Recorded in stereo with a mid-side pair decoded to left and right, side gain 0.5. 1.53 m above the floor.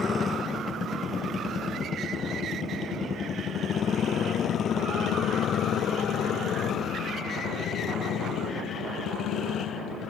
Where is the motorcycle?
35° left; by 10.1 s 75° left.